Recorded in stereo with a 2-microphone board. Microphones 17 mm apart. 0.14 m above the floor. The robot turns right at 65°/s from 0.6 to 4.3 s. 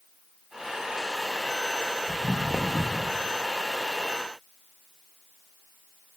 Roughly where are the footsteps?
Right.